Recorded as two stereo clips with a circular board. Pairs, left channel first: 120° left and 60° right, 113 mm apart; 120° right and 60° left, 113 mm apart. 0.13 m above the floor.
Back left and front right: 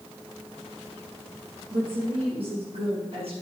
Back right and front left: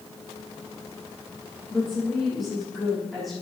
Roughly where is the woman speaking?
Ahead right.